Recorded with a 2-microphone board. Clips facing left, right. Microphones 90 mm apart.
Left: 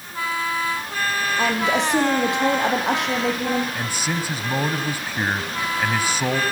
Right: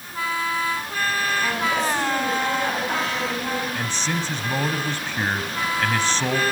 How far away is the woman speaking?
About 8 m.